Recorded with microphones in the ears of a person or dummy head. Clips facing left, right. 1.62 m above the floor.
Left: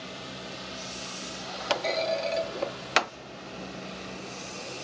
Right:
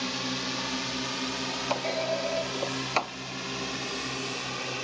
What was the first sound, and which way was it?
A drone, 75° right (ahead or behind).